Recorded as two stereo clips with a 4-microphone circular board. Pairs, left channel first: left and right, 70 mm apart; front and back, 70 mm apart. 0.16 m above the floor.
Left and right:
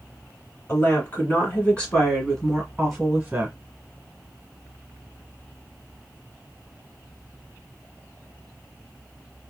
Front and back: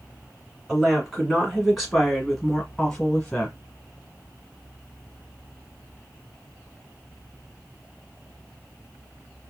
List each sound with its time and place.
0.7 s a woman speaking: 110° left, 2.0 m; by 3.5 s 50° right, 1.7 m